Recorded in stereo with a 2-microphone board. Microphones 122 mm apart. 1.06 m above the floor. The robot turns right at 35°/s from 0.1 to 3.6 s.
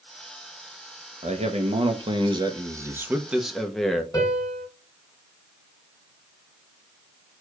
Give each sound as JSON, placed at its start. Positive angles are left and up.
{"t": 1.2, "sound": "a man speaking", "azimuth_deg": -80, "distance_m": 0.6}
{"t": 4.1, "sound": "a piano", "side_deg": 35, "distance_m": 1.9}